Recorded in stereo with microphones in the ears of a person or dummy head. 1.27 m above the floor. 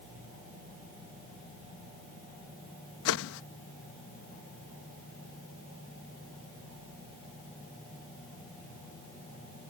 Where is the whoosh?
75° left (ahead or behind).